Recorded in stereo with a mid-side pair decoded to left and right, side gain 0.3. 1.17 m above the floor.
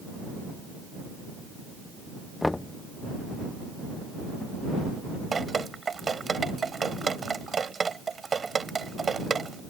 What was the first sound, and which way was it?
Knocking, 25° left.